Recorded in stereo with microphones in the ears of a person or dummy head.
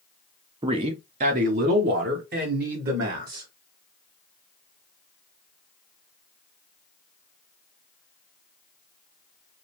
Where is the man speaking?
20° right (ahead or behind), 0.6 m; by 3.5 s 50° right (ahead or behind), 1.8 m.